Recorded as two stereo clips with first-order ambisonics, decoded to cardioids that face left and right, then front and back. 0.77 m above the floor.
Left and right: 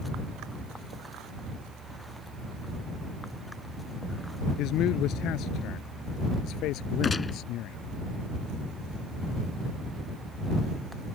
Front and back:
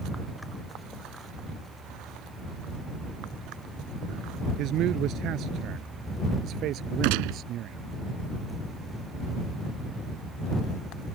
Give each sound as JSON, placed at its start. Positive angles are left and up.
{"t": 4.6, "sound": "a man speaking", "azimuth_deg": 135}
{"t": 7.0, "sound": "a gunshot", "azimuth_deg": 165}